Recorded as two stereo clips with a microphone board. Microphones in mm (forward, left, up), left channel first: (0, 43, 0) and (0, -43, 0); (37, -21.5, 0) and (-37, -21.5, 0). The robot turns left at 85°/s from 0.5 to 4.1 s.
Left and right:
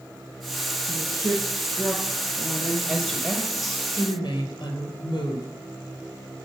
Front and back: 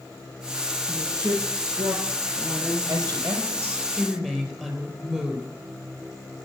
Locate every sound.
0.9 s a woman speaking: 115° right, 2.5 m; by 2.8 s 80° left, 2.5 m
2.9 s a woman speaking: 175° right, 4 m; by 5.5 s 80° left, 4 m